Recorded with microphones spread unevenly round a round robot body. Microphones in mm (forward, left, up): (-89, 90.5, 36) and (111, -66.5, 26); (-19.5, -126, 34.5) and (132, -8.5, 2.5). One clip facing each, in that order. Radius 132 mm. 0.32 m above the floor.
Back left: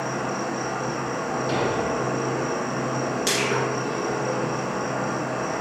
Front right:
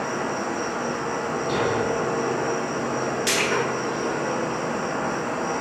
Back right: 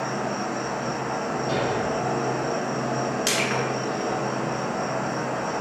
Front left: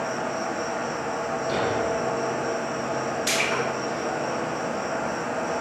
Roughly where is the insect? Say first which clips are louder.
Front right 1 dB, back right 1 dB; behind.